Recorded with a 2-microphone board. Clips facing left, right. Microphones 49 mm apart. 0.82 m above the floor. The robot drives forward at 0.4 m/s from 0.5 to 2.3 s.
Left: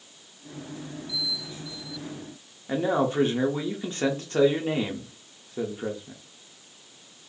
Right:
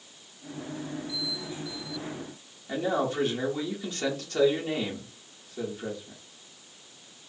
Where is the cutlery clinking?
I don't hear cutlery clinking.